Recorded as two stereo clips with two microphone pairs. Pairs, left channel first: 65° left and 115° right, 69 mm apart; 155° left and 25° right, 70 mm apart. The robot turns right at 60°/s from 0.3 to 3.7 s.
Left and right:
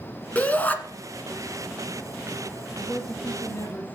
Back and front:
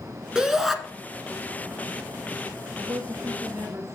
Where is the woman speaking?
25° right, 2 m; by 3.9 s 30° left, 2 m.